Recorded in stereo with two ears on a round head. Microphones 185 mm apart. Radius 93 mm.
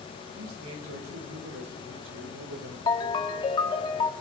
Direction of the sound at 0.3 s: 75° right (ahead or behind).